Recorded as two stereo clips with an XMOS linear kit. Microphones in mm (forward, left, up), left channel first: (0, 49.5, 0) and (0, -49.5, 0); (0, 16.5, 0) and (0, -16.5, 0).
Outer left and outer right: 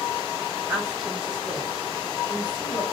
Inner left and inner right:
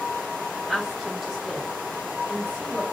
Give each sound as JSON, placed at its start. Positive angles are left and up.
{"t": 0.7, "sound": "a woman speaking", "side_deg": -15, "distance_m": 2.0}